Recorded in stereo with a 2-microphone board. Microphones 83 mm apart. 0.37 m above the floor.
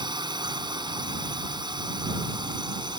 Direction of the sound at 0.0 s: 65° right (ahead or behind).